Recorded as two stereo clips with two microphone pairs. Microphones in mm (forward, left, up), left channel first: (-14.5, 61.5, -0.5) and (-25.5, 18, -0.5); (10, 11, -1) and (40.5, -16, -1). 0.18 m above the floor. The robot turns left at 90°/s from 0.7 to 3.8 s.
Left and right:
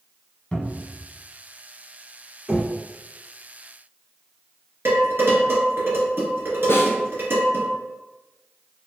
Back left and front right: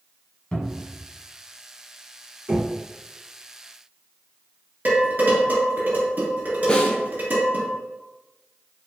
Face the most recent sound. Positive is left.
turn(degrees=75)